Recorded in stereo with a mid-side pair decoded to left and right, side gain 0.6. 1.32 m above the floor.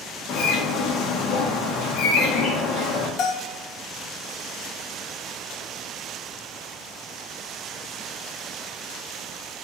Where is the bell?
60° left, 1.2 m.